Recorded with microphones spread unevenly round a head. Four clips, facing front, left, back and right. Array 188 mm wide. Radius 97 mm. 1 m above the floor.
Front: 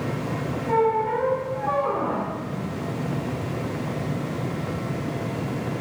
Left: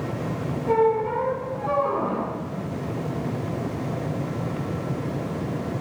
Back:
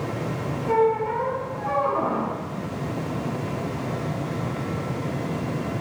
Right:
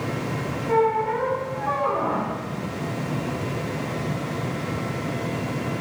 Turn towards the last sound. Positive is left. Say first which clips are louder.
# even, even
turn(degrees=95)